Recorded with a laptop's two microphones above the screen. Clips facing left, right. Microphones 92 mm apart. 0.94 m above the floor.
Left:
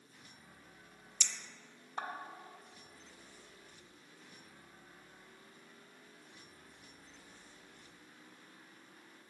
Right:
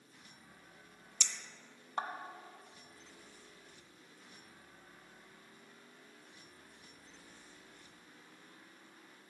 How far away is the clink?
About 0.5 m.